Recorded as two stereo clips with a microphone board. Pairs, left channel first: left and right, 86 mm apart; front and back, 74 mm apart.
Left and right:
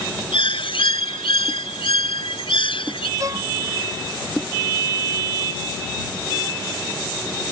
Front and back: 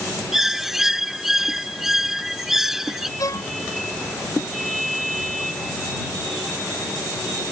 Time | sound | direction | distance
0.3 | a bird | 95° left | ?
3.2 | a violin | 40° right | ?